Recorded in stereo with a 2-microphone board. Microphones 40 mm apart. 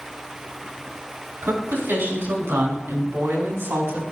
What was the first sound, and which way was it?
A woman speaking, 75° right (ahead or behind).